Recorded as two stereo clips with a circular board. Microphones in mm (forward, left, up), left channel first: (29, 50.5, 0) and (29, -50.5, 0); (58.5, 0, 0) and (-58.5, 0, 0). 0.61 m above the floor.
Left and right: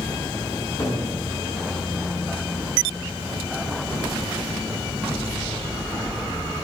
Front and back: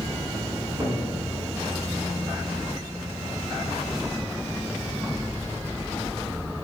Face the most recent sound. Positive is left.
turn(degrees=140)